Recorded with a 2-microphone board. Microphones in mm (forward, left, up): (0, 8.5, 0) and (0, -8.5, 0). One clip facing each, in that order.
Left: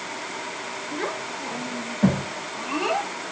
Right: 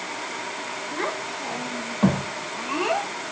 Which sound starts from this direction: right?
A child speaking, at 0.9 s.